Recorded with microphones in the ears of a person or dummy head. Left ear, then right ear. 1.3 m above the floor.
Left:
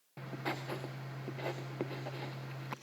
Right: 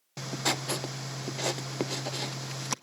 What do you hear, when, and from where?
0.2 s writing: 85° right, 0.5 m